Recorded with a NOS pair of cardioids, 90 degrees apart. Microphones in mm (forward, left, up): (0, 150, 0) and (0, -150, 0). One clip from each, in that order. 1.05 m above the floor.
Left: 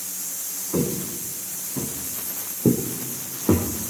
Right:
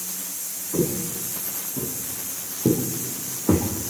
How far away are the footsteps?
About 5.5 m.